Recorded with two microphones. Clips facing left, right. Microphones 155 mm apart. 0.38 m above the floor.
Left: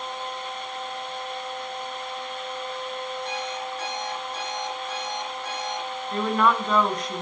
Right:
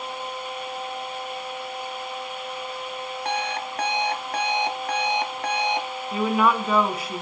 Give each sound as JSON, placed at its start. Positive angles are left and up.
{"t": 3.2, "sound": "an alarm clock", "side_deg": -65, "distance_m": 1.9}
{"t": 6.1, "sound": "a woman speaking", "side_deg": -5, "distance_m": 3.0}